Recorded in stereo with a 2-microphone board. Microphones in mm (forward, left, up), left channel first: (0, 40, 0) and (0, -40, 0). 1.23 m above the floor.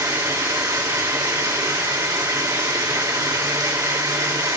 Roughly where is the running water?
Right.